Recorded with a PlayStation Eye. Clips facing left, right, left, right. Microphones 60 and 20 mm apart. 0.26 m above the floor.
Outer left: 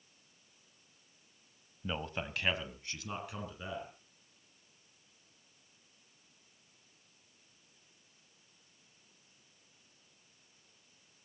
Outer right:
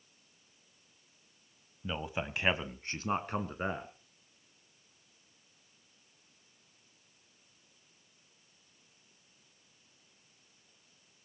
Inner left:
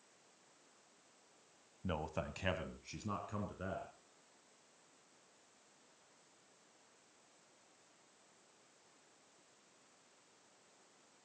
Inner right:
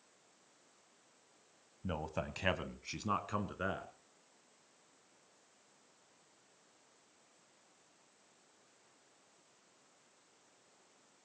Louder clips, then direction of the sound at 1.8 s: Outer right 2 dB, inner right 1 dB; 5° left (ahead or behind).